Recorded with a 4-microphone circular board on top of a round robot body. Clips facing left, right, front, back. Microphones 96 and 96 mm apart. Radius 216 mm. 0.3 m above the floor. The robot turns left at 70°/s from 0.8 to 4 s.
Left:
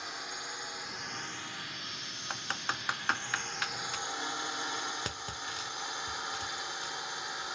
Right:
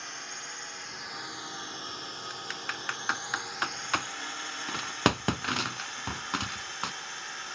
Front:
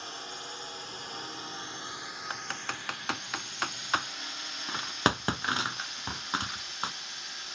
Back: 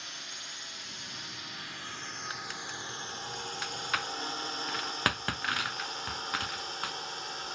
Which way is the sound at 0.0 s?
15° left.